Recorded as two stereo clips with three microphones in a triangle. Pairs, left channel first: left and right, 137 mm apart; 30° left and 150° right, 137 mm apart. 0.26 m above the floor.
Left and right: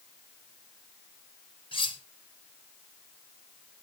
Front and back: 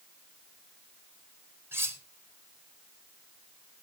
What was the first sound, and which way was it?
Cutlery clinking, 140° left.